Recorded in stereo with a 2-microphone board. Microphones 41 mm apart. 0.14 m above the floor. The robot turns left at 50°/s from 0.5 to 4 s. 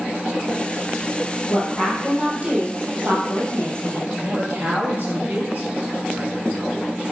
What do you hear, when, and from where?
1.5 s a woman speaking: 15° left, 3.5 m; by 4.0 s 110° right, 3.5 m
4.1 s a man speaking: 50° right (ahead or behind), 3 m